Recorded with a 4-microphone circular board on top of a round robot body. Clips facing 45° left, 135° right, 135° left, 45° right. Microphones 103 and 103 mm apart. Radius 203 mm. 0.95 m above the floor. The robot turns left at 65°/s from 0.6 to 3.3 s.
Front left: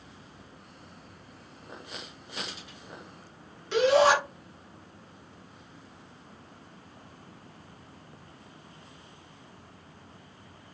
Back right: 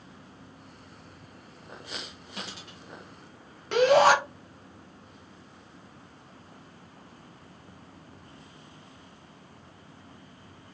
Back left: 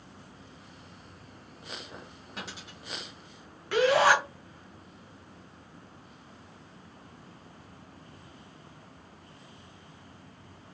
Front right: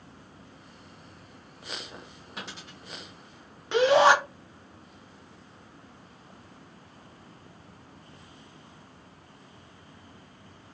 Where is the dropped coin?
130° right, 0.9 m; by 2.8 s 160° right, 0.9 m.